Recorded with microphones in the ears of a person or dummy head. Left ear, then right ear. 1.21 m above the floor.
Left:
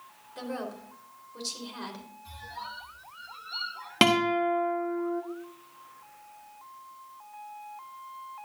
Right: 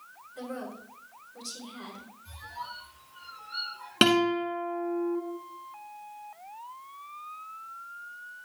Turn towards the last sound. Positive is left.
turn(degrees=10)  # may be behind; listen again after turning